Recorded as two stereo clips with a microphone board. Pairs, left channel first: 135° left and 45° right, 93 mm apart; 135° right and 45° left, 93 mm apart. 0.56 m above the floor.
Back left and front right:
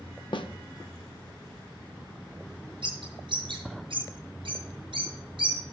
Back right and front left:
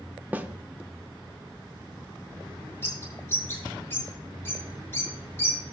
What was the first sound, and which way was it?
A snare drum, 115° left.